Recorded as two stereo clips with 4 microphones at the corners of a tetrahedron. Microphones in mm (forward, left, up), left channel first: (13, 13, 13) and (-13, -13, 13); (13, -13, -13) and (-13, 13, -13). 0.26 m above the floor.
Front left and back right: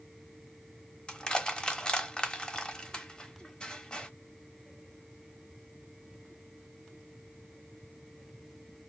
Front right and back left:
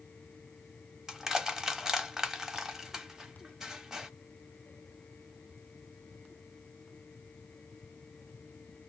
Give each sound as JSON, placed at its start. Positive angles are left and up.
{"t": 1.1, "sound": "crushing", "azimuth_deg": 75, "distance_m": 0.8}